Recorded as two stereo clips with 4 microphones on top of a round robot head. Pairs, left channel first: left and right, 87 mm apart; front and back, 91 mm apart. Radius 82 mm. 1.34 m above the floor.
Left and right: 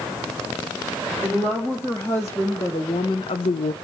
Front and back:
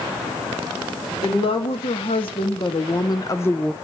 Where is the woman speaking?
15° left, 2.5 m; by 3.7 s 95° left, 0.5 m.